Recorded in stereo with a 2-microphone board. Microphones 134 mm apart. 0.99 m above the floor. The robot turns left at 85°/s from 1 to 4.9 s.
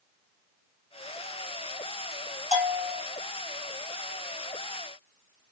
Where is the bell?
70° left, 1.8 m; by 3.0 s 25° left, 1.8 m.